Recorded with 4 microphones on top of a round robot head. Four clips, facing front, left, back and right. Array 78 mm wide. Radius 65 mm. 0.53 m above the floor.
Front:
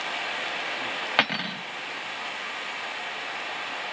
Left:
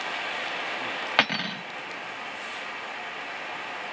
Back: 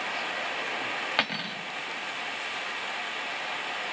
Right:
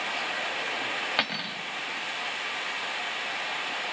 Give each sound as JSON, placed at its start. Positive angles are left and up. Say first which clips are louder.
{"t": 1.2, "sound": "cutlery clinking", "louder": "left 5 dB, front 4 dB", "azimuth_deg": 50, "distance_m": 0.5}